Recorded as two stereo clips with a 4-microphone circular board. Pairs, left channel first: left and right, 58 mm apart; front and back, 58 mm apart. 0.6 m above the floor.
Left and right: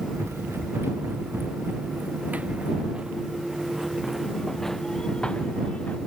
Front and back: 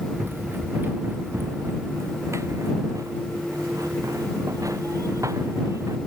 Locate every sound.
0.1 s running footsteps: 130° right; by 6.0 s 155° left